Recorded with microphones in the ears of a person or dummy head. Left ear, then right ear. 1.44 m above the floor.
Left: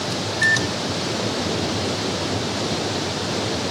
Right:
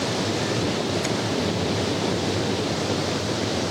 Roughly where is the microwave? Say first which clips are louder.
Left 6 dB; left.